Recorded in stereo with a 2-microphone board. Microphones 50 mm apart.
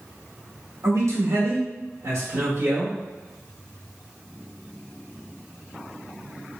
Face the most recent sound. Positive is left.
turn(degrees=-40)  # may be behind; listen again after turning